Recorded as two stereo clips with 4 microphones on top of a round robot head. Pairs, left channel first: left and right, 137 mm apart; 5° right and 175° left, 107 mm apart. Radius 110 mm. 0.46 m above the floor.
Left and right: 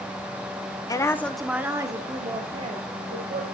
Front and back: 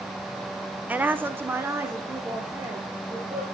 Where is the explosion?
No explosion in this recording.